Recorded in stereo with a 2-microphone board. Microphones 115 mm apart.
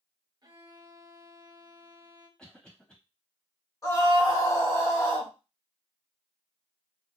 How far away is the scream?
About 2 m.